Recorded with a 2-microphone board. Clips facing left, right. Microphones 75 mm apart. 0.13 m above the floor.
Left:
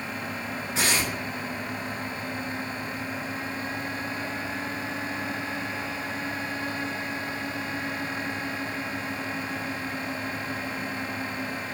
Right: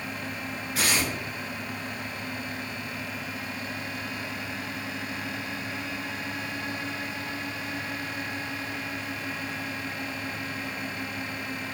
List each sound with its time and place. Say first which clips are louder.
0.8 s tearing paper: even; 25° left (ahead or behind), 0.9 m